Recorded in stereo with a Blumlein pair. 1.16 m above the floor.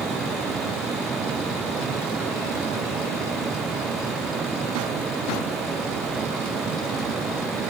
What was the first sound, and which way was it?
A fan, 20° right.